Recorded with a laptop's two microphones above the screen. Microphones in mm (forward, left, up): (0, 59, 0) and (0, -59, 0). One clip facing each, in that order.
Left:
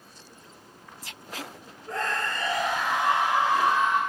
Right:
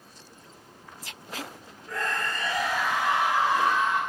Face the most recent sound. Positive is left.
turn(degrees=20)  # may be behind; listen again after turning